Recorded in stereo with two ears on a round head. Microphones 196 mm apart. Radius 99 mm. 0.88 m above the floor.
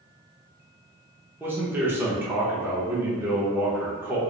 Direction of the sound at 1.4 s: 10° right (ahead or behind).